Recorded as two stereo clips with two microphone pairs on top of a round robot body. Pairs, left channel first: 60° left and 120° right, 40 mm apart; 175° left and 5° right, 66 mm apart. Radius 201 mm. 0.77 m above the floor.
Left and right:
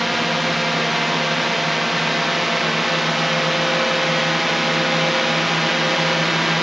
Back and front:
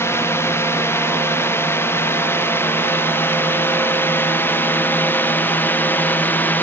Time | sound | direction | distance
0.0 | a drone | 155° left | ?